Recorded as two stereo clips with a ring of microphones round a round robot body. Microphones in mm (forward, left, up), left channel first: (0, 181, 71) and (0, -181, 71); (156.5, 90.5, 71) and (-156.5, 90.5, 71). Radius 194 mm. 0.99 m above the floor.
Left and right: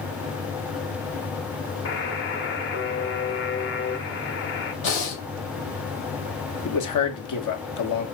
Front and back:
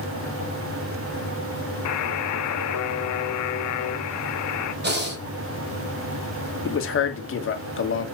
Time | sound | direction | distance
1.9 | a buzzer | 30° left | 1.1 m
4.8 | breathing | 125° left | 5 m
6.7 | a man speaking | 50° left | 2 m